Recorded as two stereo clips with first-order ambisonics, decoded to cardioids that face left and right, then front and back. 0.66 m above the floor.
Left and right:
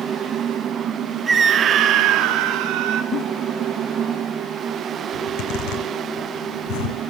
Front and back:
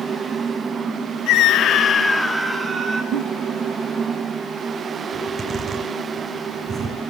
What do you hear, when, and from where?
1.3 s a scream: 20° right, 1.1 m; by 3.0 s 115° right, 1.5 m
3.1 s a giggle: 145° left, 1.7 m
5.1 s a zipper: 110° left, 5.5 m